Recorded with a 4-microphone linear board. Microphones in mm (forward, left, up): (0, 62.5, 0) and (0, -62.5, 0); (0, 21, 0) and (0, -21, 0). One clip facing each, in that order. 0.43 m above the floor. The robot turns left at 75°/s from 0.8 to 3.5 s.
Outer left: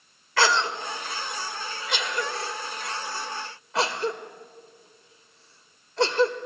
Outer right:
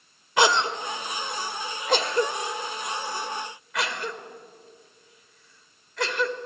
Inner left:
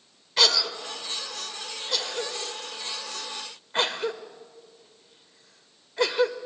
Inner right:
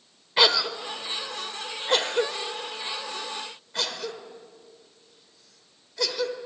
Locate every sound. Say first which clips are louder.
0.4 s a cough: outer right 2 dB, inner right 2 dB; 20° right (ahead or behind), 1.8 m; by 6.4 s 30° left (ahead or behind), 1.8 m